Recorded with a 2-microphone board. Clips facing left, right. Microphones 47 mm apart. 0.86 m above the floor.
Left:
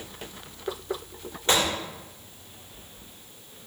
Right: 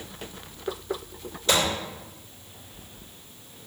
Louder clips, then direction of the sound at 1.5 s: Even; 30° left (ahead or behind).